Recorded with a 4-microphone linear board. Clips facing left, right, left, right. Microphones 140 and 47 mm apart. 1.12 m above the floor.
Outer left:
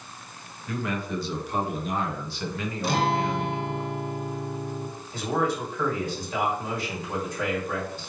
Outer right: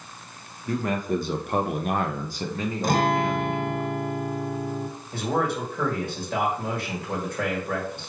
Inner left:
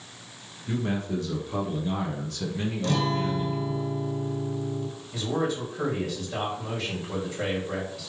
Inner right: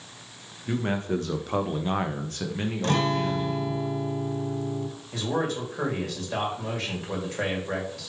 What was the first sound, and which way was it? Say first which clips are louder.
A man speaking: outer right 4 dB, inner right 2 dB; 40° right (ahead or behind).